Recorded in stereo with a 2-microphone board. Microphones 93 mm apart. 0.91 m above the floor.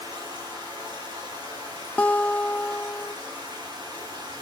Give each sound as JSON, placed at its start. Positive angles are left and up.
{"t": 0.0, "sound": "running water", "side_deg": -55, "distance_m": 8.5}
{"t": 2.0, "sound": "a guitar", "side_deg": 15, "distance_m": 0.5}